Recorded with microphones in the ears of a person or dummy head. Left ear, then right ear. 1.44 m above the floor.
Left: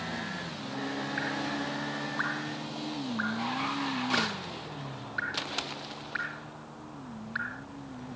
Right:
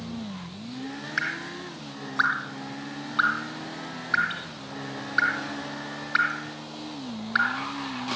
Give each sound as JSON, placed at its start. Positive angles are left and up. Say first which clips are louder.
{"t": 1.2, "sound": "dripping", "louder": "right 6 dB", "side_deg": -50}